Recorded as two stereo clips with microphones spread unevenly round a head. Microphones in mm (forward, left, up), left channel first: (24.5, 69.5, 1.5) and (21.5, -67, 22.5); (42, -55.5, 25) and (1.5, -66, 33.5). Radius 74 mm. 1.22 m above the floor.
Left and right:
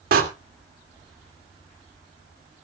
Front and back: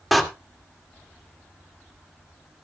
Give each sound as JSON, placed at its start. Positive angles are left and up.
{"t": 0.1, "sound": "a door slam", "azimuth_deg": -80, "distance_m": 2.0}